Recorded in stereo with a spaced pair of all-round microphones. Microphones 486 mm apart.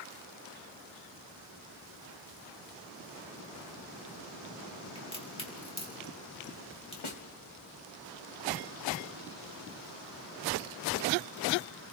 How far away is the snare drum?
About 1.3 m.